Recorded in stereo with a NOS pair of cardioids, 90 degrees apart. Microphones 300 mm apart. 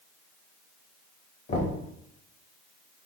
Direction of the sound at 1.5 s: 40° left.